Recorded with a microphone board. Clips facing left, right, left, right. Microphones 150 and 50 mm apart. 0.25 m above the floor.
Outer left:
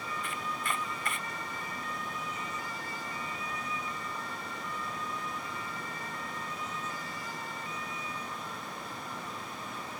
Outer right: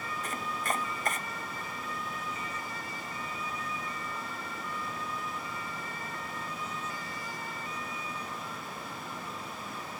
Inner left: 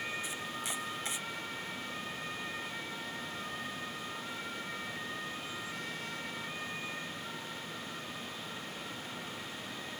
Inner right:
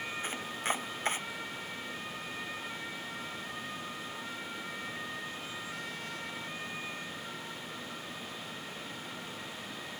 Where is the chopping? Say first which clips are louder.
Outer right 4 dB, inner right 4 dB; 45° right (ahead or behind).